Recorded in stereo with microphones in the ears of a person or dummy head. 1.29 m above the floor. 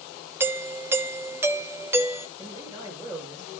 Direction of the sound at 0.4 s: 10° right (ahead or behind).